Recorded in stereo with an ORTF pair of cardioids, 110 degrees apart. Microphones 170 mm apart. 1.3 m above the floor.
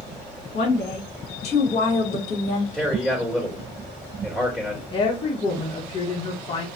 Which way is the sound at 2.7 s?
5° left.